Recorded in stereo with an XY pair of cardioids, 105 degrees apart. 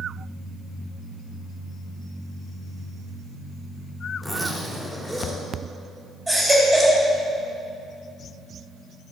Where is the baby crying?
15° right, 3.5 m.